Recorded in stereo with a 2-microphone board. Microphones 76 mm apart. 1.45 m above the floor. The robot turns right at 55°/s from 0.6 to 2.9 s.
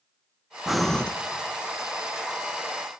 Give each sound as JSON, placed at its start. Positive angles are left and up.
{"t": 0.7, "sound": "breathing", "side_deg": -5, "distance_m": 0.7}